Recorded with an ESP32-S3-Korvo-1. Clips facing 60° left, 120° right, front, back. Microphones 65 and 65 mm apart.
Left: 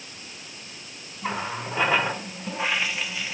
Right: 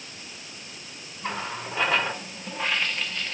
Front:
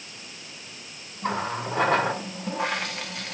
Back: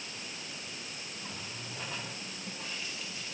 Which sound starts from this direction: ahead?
A running tap, at 1.2 s.